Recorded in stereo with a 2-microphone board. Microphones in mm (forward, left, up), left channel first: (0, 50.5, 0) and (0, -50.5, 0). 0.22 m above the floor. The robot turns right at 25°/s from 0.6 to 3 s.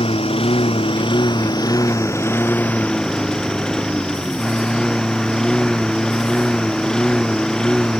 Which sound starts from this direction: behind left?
A lawn mower, at 0.0 s.